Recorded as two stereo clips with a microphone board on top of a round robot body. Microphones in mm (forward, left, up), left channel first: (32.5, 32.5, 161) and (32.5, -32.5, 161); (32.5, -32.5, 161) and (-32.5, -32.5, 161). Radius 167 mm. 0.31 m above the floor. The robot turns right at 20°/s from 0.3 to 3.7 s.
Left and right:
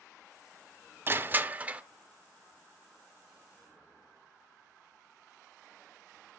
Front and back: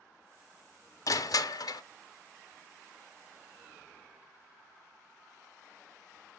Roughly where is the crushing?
Ahead right.